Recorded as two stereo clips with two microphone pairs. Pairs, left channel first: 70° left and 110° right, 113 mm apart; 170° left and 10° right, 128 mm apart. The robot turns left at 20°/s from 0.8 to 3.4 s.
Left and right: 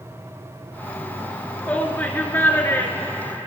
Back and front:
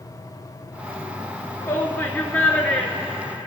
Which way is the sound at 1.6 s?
130° left.